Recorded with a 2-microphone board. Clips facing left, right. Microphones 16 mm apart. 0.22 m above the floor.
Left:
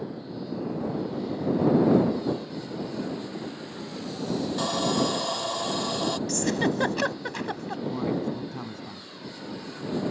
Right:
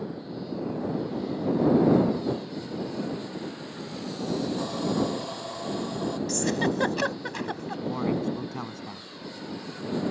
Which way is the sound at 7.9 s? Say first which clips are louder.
Right 1 dB; 25° right (ahead or behind).